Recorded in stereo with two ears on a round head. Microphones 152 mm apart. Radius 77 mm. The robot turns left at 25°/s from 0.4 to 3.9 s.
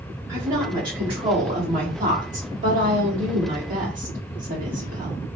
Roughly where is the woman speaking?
Ahead.